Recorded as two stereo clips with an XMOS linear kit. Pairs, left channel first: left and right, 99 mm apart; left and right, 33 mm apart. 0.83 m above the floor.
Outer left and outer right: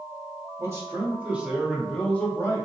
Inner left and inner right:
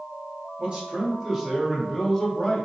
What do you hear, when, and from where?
0.6 s a man speaking: 30° right (ahead or behind), 1.4 m; by 2.6 s 30° left (ahead or behind), 1.1 m